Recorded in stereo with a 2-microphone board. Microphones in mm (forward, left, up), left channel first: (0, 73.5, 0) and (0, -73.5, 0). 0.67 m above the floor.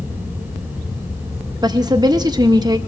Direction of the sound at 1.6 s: 25° right (ahead or behind).